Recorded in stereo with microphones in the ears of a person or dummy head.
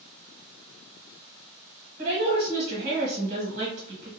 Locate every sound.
2.0 s a woman speaking: 40° right (ahead or behind), 1.5 m